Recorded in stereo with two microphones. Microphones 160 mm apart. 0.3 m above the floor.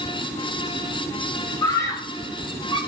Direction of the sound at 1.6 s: 20° left (ahead or behind).